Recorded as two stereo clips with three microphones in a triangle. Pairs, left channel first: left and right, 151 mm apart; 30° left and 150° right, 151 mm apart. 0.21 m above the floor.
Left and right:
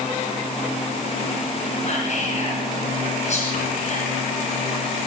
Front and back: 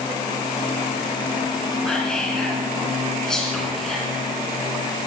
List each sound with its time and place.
1.8 s whispering: 115° left, 2.5 m